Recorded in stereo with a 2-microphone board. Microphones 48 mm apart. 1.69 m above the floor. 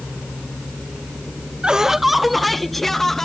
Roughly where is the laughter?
Centre.